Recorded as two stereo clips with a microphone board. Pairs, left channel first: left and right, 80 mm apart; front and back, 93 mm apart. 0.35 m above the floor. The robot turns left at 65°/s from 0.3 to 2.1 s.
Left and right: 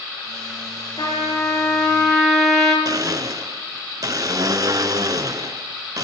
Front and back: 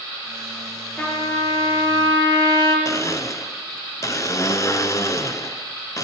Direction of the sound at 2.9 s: 50° right.